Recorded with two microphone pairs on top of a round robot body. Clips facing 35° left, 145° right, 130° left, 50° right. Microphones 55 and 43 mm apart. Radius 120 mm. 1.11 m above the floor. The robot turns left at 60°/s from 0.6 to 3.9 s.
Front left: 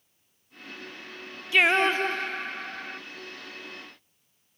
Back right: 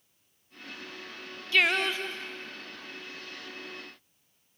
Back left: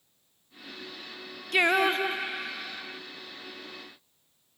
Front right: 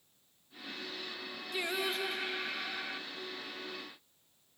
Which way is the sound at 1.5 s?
105° left.